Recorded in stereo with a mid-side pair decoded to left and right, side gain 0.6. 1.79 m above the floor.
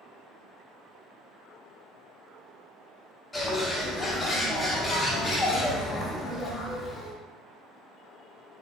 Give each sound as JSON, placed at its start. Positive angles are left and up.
{"t": 3.3, "sound": "a bird", "azimuth_deg": 20, "distance_m": 0.8}